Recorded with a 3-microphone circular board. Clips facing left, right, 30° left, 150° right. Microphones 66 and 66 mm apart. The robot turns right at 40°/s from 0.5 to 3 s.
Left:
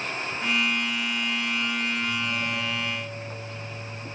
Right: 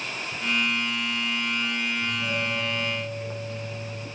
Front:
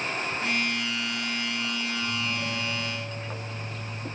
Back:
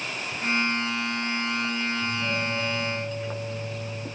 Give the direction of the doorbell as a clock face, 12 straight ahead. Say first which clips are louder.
Even, back 2 dB; 5 o'clock.